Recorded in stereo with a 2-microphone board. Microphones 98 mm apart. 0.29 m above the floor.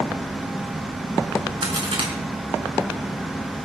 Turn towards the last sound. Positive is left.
turn(degrees=-65)  # may be behind; listen again after turning